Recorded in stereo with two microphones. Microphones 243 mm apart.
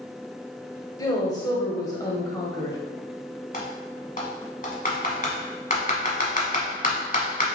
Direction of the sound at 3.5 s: 35° left (ahead or behind).